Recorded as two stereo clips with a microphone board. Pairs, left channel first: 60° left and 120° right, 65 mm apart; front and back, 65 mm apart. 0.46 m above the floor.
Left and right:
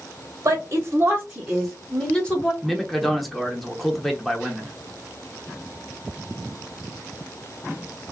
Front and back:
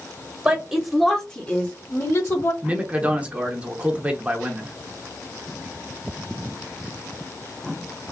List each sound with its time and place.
0.5 s a woman speaking: 115° right, 1.4 m; by 2.5 s 5° right, 1.7 m
2.6 s a man speaking: 145° left, 0.9 m